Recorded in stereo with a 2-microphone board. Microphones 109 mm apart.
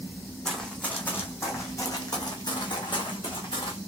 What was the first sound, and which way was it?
Running footsteps, 5° left (ahead or behind).